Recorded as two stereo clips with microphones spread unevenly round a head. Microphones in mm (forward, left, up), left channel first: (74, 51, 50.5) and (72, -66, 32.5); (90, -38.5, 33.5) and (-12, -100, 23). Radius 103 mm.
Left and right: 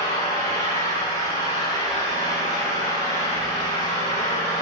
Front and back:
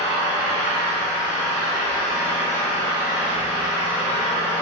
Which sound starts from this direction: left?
An engine running, at 0.0 s.